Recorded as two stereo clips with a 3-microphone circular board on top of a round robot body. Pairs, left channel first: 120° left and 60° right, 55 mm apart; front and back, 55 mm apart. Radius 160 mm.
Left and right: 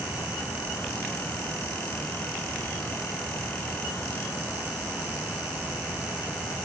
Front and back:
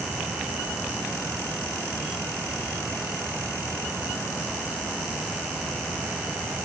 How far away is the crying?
No crying in this recording.